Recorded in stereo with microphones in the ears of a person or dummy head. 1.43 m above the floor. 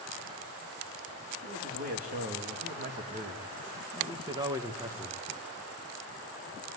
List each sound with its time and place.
1.4 s a man speaking: 50° right (ahead or behind), 3 m; by 5.5 s 5° left (ahead or behind), 1.7 m